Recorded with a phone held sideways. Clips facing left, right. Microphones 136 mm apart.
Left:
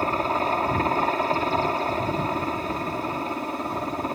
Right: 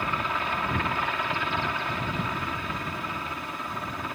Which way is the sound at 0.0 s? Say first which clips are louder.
Left 6 dB; 35° left (ahead or behind).